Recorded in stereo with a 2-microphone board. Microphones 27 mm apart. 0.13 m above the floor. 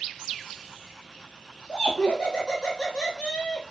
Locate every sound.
1.7 s laughter: 30° left (ahead or behind), 1.2 m